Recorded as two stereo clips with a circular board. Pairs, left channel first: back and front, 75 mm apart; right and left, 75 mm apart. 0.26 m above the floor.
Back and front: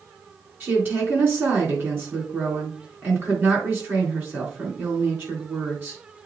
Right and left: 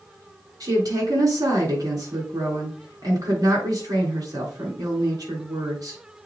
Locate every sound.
0.6 s a woman speaking: 60° left, 4 m